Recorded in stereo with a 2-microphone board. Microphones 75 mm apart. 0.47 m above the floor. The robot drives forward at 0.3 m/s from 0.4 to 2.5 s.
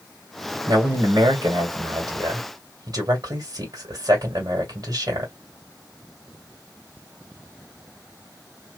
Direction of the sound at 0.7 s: 65° right (ahead or behind).